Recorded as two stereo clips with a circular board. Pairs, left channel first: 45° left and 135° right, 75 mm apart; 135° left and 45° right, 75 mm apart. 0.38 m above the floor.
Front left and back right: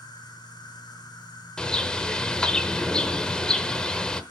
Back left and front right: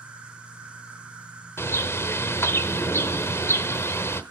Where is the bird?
115° left, 0.9 m.